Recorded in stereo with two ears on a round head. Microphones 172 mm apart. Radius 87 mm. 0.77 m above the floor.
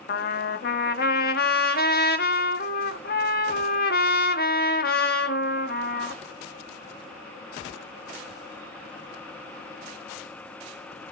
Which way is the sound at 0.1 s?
50° left (ahead or behind).